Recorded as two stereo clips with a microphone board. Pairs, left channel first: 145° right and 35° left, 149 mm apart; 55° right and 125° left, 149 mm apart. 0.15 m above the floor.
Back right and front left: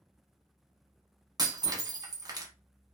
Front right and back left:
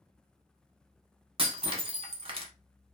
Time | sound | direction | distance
1.4 | breaking glass | 90° left | 0.8 m